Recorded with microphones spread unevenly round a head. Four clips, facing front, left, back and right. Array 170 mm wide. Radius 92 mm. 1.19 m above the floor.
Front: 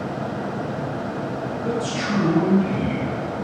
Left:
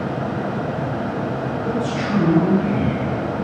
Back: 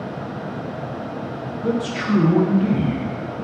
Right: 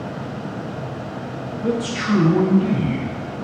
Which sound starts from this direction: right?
A man speaking, at 1.6 s.